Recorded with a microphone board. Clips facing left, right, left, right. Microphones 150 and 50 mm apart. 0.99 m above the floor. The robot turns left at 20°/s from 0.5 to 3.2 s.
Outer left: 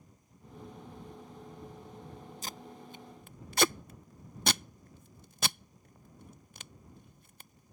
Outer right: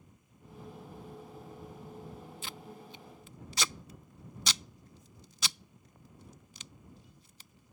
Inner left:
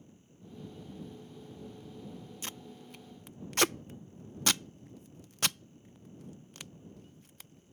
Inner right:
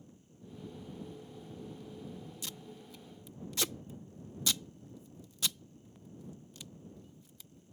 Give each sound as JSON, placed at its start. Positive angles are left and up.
{"t": 2.4, "sound": "tape being pulled", "side_deg": 40}